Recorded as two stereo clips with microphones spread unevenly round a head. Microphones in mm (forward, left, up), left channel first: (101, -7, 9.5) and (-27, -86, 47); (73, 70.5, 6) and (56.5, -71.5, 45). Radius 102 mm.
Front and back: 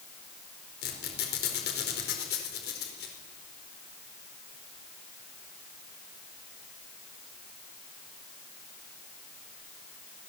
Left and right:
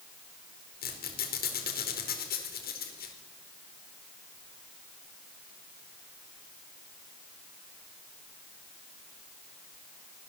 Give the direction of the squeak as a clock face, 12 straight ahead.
10 o'clock.